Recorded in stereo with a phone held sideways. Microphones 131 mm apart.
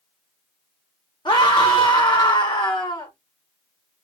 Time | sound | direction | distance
1.2 | a scream | 35° left (ahead or behind) | 0.9 m